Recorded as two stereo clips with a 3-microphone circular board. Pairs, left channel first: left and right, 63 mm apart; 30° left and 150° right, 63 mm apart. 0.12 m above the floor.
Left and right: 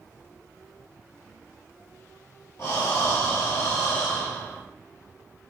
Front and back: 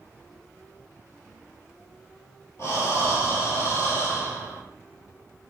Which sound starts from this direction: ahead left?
Breathing, at 2.6 s.